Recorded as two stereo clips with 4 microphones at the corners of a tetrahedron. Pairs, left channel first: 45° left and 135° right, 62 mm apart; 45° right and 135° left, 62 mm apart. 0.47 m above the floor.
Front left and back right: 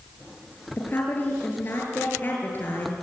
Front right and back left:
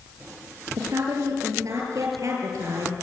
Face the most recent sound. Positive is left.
turn(degrees=105)